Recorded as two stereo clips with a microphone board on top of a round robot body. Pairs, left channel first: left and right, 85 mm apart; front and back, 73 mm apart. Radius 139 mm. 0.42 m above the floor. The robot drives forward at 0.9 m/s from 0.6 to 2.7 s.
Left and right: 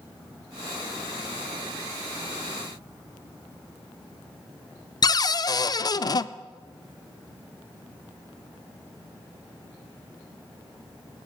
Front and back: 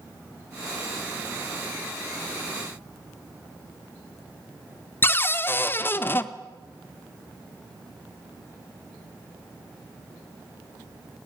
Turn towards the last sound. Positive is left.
turn(degrees=55)